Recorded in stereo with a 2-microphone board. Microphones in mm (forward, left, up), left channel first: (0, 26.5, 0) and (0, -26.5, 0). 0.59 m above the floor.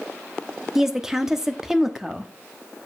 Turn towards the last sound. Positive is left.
turn(degrees=-10)  # may be behind; listen again after turning